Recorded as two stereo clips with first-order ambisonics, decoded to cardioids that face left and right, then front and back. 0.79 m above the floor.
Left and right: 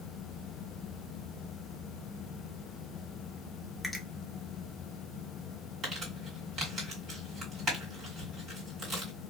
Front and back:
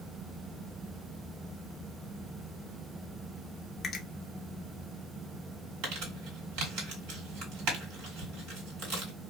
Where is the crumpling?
160° right, 1.8 m.